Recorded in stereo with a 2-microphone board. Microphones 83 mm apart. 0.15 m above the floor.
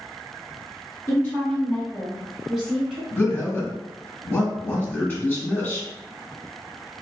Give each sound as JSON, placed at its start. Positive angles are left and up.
{"t": 1.1, "sound": "a woman speaking", "side_deg": 15, "distance_m": 1.4}
{"t": 3.1, "sound": "a man speaking", "side_deg": 20, "distance_m": 1.3}